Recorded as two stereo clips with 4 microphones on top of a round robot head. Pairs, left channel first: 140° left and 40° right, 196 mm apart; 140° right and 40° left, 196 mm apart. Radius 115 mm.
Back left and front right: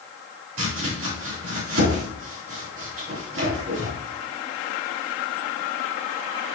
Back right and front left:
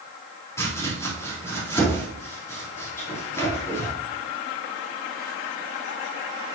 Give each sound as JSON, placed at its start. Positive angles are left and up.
{"t": 0.6, "sound": "chopping", "azimuth_deg": -65, "distance_m": 3.5}